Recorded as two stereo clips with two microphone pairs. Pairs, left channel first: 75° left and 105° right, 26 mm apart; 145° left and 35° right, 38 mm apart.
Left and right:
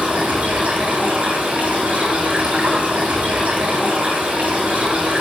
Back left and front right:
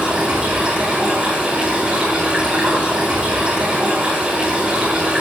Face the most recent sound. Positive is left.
turn(degrees=-95)